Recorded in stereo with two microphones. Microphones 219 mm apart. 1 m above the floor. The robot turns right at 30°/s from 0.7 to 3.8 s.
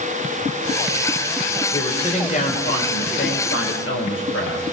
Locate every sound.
1.7 s a woman speaking: 20° left, 4 m; by 4.6 s 85° left, 4 m